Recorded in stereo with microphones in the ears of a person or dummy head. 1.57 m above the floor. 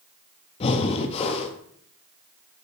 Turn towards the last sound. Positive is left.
turn(degrees=35)  # may be behind; listen again after turning